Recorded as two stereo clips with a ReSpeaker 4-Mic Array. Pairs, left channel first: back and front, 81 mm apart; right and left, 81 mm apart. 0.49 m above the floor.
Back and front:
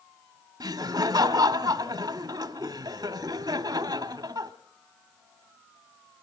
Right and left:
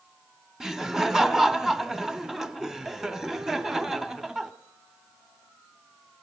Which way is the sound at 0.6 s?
5° left.